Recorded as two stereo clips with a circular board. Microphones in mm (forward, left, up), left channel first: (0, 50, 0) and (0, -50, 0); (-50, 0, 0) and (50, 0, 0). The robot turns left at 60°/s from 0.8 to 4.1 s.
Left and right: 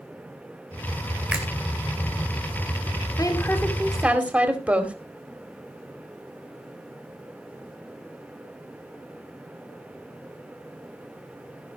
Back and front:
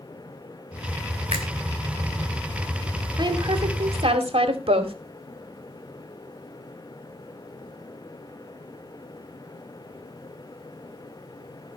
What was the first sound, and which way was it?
A finger snap, 10° right.